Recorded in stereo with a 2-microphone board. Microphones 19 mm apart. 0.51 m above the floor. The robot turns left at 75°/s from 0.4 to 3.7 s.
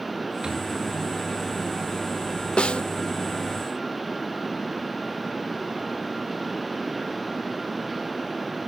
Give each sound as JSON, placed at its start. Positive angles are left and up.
{"t": 0.4, "sound": "a microwave", "azimuth_deg": -40, "distance_m": 7.0}
{"t": 2.6, "sound": "a snare drum", "side_deg": 60, "distance_m": 0.6}